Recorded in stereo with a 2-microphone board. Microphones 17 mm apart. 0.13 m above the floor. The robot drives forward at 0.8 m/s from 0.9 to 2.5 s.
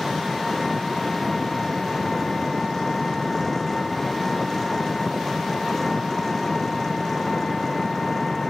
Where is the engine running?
10° left (ahead or behind); by 8.5 s 15° left (ahead or behind).